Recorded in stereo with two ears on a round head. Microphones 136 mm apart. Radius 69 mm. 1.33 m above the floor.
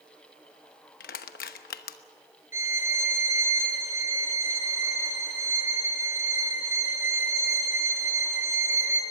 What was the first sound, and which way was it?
Crushing, 65° left (ahead or behind).